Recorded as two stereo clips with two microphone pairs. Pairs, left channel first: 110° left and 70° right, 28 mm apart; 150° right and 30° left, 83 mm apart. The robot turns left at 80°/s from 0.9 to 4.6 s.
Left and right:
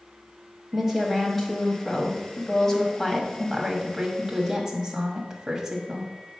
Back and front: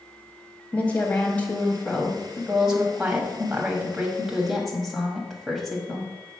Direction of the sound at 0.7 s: 120° right.